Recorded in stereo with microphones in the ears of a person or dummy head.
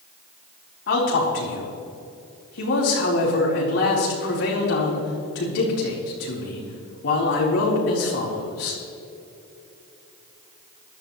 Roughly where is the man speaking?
Left.